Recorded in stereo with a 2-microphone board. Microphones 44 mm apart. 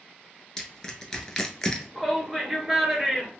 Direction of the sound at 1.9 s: 5° right (ahead or behind).